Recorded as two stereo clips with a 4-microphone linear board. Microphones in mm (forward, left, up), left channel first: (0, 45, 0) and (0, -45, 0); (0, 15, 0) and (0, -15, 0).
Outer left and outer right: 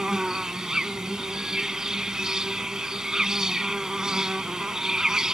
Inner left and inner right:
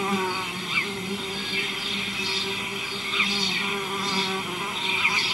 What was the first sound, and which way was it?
An insect, 5° right (ahead or behind).